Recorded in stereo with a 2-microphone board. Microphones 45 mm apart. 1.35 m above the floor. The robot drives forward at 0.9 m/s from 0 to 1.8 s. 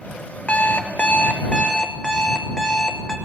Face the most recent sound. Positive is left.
turn(degrees=20)  # may be behind; listen again after turning